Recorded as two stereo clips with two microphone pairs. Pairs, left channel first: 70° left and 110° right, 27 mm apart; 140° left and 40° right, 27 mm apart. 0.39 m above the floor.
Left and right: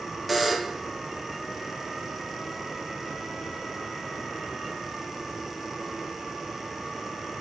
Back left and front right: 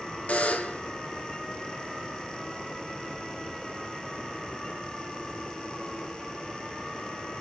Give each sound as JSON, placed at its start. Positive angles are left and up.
{"t": 0.3, "sound": "a buzzer", "azimuth_deg": 160, "distance_m": 1.7}